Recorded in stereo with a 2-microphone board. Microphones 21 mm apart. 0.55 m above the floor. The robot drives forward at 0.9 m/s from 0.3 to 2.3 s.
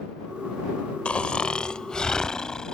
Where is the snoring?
70° left (ahead or behind); by 2.7 s 35° left (ahead or behind).